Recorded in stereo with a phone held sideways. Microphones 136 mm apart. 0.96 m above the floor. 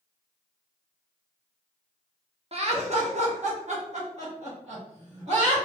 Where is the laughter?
45° right (ahead or behind), 0.7 m; by 5.6 s 55° right (ahead or behind), 2.5 m.